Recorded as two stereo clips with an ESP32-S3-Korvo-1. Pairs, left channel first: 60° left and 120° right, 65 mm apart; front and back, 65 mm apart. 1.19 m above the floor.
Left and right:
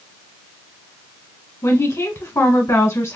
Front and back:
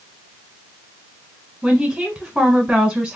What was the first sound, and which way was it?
A woman speaking, 100° left.